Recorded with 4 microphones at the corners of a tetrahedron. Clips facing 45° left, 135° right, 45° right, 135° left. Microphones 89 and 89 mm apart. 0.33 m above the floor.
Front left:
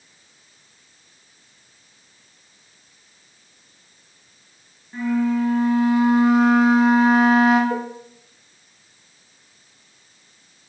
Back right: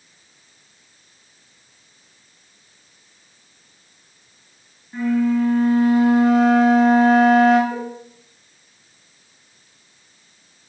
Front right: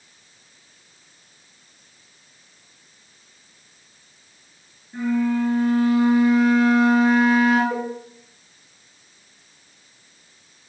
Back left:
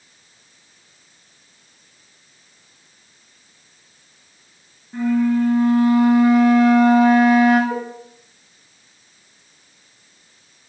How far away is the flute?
About 2.5 m.